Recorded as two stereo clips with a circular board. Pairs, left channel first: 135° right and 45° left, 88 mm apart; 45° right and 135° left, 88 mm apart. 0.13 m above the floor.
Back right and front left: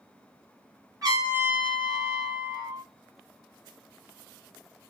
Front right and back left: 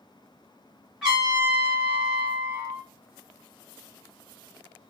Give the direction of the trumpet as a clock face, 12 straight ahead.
10 o'clock.